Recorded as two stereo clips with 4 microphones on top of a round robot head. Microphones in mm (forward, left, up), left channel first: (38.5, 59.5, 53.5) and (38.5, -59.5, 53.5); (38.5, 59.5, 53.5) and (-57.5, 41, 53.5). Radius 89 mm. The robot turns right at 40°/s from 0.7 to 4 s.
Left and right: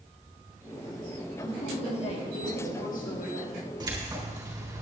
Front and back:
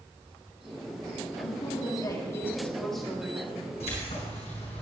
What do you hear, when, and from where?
1.4 s a woman speaking: 35° left, 3 m; by 3.5 s 125° left, 3 m
3.8 s keys jangling: 35° right, 3.5 m; by 4.8 s 30° right, 3.5 m